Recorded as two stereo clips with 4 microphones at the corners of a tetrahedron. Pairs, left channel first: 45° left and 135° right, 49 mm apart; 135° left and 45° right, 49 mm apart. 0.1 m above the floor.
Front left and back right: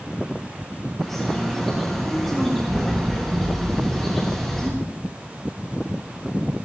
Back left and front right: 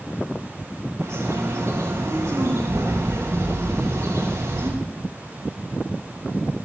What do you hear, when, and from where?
1.0 s a bird: 40° right, 5.5 m